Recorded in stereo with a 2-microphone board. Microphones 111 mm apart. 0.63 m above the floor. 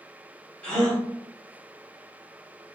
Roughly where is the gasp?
Centre.